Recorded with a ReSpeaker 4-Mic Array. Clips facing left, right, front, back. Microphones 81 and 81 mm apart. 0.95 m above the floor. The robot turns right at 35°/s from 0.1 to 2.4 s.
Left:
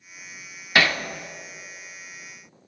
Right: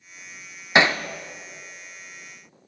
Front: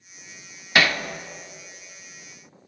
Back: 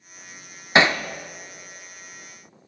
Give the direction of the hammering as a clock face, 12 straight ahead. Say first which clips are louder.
Right 2 dB, back 3 dB; 5 o'clock.